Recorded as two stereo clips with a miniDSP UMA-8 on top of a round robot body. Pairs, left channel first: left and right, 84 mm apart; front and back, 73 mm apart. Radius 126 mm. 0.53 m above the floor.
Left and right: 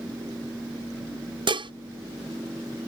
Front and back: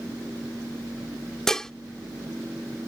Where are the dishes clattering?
85° right.